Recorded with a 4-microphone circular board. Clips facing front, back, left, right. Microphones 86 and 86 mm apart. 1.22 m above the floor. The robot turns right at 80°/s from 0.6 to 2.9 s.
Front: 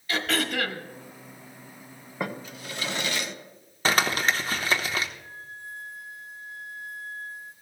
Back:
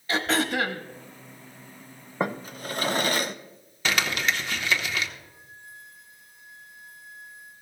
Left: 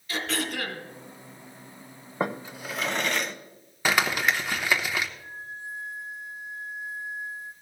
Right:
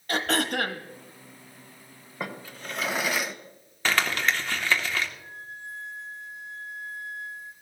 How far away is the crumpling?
About 0.9 m.